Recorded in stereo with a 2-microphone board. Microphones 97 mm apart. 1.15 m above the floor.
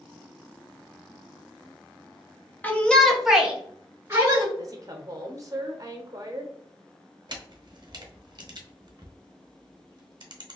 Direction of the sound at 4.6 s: 40° right (ahead or behind).